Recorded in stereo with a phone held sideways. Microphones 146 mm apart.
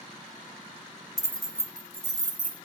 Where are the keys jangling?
25° left (ahead or behind), 0.6 m; by 2.5 s 60° right (ahead or behind), 1.1 m.